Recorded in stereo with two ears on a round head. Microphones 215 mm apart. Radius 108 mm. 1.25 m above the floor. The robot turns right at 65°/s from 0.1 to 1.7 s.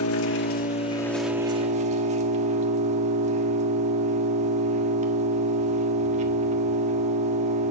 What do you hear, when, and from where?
0.0 s an engine running: 110° left, 1.4 m; by 7.7 s 150° right, 1.4 m